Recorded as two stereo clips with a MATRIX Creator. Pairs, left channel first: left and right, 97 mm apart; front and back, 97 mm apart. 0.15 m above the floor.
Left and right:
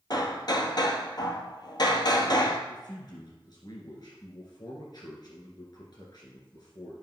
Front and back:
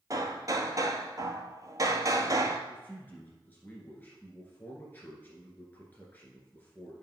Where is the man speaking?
65° left, 1.7 m.